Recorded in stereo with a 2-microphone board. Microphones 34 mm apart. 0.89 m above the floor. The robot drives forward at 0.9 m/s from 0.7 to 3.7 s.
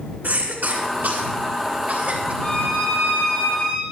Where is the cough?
65° right (ahead or behind), 2.5 m; by 2.3 s 45° right (ahead or behind), 3.5 m.